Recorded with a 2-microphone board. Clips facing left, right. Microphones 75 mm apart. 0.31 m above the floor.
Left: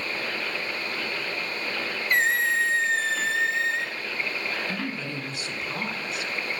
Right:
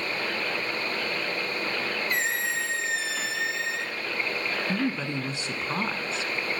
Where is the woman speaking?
30° right (ahead or behind), 2.5 m.